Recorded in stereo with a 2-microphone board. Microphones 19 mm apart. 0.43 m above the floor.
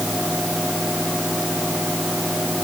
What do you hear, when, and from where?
Only background noise.